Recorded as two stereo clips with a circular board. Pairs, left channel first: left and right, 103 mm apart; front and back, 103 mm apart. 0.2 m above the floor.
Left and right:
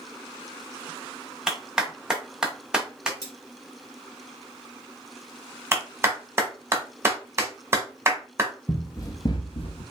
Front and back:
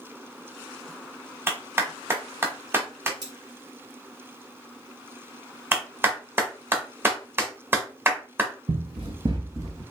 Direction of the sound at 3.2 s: 135° left.